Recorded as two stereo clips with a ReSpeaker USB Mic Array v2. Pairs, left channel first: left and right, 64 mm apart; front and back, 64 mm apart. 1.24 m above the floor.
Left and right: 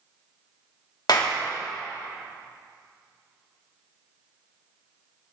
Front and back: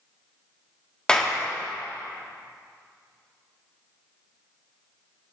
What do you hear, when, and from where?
1.1 s a clap: 75° left, 1.6 m